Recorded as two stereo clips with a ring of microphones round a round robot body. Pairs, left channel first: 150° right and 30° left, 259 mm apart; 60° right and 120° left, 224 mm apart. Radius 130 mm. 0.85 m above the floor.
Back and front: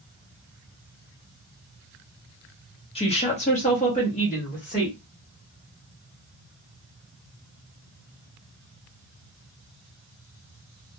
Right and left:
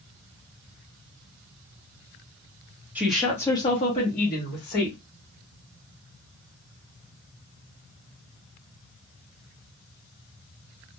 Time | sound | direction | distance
3.0 | a woman speaking | 170° right | 0.8 m